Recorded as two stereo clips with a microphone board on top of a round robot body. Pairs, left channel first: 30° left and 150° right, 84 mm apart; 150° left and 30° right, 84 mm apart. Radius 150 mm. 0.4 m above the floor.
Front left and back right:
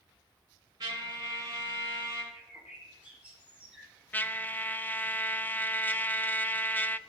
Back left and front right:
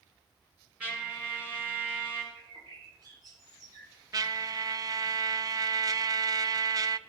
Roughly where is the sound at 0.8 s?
Right.